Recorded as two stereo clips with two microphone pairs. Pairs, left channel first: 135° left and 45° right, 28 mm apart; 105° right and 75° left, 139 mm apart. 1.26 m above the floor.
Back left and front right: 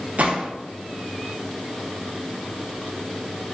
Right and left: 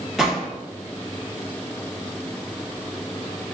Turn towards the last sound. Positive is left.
turn(degrees=-15)